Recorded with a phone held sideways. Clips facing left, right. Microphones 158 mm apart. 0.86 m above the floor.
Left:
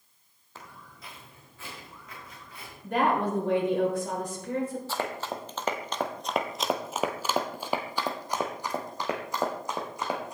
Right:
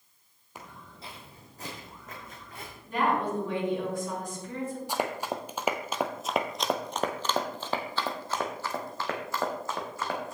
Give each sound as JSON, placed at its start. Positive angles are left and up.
{"t": 0.6, "sound": "footsteps", "side_deg": -15, "distance_m": 1.6}
{"t": 2.8, "sound": "a woman speaking", "side_deg": 70, "distance_m": 3.5}
{"t": 4.9, "sound": "running footsteps", "side_deg": -15, "distance_m": 1.2}